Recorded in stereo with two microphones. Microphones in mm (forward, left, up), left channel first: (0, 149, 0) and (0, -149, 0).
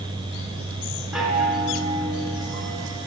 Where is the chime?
Centre (ahead or behind), 2.5 m.